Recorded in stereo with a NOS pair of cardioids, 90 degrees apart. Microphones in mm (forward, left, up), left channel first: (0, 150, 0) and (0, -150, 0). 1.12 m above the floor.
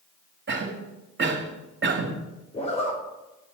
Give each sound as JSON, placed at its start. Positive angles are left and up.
{"t": 0.5, "sound": "a cough", "azimuth_deg": -40, "distance_m": 2.0}
{"t": 2.5, "sound": "a zipper", "azimuth_deg": 20, "distance_m": 3.5}